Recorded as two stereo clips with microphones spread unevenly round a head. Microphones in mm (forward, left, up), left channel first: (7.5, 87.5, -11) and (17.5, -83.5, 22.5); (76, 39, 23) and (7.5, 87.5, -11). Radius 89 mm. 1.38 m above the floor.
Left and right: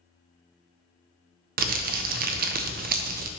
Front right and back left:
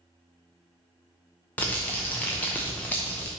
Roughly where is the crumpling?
Right.